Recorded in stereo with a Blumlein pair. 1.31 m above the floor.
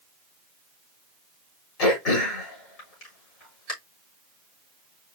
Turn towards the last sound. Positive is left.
turn(degrees=35)